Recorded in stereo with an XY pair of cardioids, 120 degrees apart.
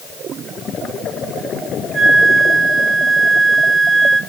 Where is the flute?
25° right, 4.5 m.